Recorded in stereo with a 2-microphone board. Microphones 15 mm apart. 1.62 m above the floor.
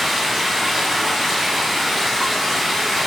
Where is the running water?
30° right (ahead or behind), 1.4 m.